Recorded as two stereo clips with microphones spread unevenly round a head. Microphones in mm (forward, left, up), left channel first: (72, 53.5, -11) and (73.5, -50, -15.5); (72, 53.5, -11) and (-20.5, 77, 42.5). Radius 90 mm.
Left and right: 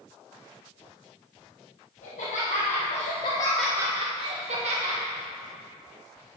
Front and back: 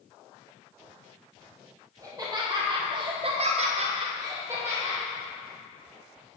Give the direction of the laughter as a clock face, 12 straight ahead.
9 o'clock.